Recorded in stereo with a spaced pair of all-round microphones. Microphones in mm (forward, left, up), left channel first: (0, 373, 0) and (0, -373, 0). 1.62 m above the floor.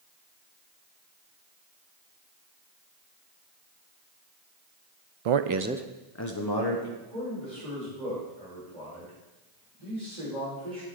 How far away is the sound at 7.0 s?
About 5.5 m.